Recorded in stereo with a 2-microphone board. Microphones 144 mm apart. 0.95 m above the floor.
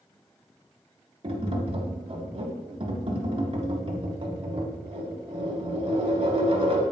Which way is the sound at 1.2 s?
45° right (ahead or behind).